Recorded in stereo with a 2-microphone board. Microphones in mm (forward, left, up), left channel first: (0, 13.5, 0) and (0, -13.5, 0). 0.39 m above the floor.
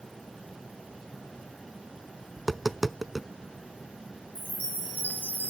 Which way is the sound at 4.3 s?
70° left (ahead or behind).